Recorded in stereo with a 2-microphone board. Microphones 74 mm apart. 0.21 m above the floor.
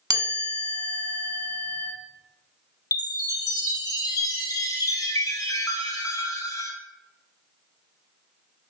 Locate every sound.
0.1 s a chime: 55° right (ahead or behind), 0.7 m
2.9 s a chime: 60° left (ahead or behind), 0.6 m